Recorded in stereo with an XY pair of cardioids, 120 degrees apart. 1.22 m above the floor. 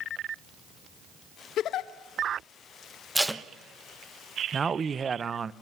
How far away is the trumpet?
I don't hear a trumpet.